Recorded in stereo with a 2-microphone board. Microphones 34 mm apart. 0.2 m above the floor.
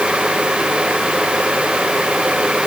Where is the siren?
I don't hear a siren.